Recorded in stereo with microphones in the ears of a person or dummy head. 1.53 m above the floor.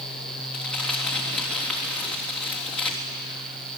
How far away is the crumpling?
About 3 m.